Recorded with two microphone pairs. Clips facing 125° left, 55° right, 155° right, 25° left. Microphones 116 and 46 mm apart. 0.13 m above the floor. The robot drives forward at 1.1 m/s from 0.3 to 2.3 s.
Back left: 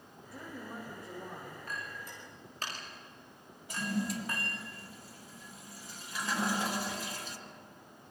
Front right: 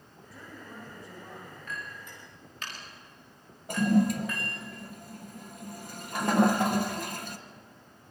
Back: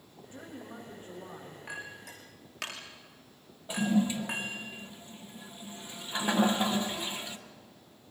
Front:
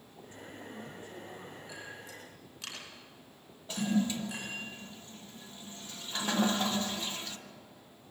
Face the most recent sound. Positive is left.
turn(degrees=-85)